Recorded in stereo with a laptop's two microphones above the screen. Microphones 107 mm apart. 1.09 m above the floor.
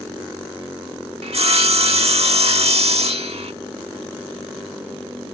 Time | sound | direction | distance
1.2 | sawing | 70° right (ahead or behind) | ?